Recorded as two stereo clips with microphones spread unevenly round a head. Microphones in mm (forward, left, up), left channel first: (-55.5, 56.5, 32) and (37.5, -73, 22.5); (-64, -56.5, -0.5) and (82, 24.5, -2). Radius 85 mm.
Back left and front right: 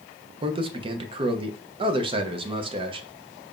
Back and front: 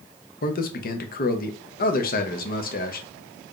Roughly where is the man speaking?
Behind right.